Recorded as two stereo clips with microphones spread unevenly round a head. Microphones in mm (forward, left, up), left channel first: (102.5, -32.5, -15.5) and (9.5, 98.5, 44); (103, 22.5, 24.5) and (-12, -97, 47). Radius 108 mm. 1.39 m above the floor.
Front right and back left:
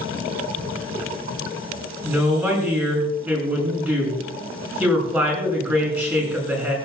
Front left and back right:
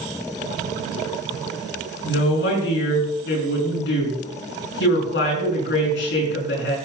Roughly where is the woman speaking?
Ahead left.